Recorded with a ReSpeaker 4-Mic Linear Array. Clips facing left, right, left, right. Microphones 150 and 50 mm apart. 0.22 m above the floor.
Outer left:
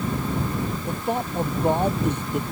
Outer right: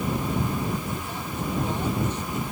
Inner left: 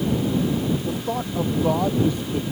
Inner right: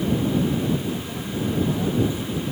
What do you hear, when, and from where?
0.8 s a man speaking: 60° left (ahead or behind)